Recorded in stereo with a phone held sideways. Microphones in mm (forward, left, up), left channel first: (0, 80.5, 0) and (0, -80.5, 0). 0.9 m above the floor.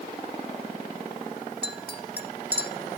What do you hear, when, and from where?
1.6 s a clink: 80° left, 1.3 m